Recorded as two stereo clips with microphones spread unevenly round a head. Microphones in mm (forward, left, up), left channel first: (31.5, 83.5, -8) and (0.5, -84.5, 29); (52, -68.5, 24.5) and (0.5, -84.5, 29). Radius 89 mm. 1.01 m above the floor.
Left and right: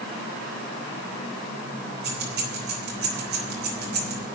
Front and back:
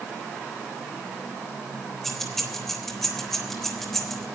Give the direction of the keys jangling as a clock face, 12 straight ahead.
2 o'clock.